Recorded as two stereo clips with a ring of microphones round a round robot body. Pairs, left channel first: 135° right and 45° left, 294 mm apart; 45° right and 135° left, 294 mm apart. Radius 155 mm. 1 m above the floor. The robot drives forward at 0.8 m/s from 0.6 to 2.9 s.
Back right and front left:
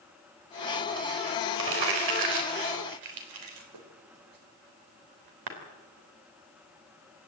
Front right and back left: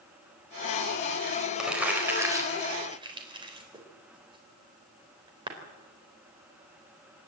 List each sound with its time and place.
1.6 s crumpling: 45° left, 4 m; by 5.5 s 60° left, 3.5 m